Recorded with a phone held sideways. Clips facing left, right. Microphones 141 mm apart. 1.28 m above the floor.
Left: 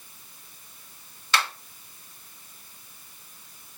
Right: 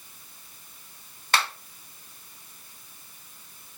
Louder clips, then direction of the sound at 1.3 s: Even; 50° right (ahead or behind).